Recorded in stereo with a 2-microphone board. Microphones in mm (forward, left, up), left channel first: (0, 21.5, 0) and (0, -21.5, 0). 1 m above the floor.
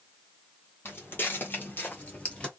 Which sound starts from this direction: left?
Footsteps, at 0.8 s.